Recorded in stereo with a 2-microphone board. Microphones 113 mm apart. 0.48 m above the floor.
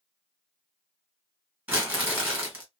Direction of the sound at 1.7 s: 15° right (ahead or behind).